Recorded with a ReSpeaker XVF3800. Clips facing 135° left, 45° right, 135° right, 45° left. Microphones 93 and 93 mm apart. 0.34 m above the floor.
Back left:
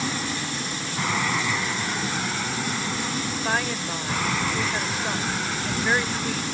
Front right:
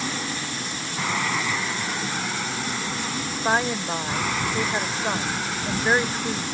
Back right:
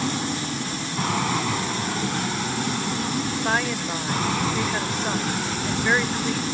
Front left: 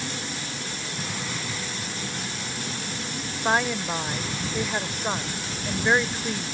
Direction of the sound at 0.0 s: 135° right.